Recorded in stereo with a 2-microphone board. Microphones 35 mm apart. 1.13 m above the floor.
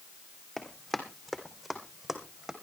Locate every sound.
0.6 s running footsteps: 10° left (ahead or behind), 2.5 m; by 2.5 s 15° right (ahead or behind), 2.5 m